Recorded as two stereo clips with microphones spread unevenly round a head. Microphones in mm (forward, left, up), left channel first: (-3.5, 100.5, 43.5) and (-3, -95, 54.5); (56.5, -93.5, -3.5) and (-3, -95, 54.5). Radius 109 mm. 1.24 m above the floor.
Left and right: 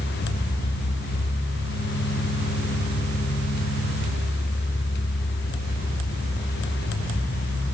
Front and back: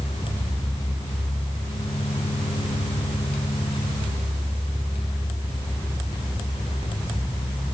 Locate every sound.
Only background noise.